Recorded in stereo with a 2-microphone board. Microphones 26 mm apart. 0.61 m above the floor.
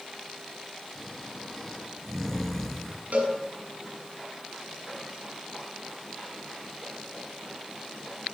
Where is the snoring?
10° left (ahead or behind), 5.5 m.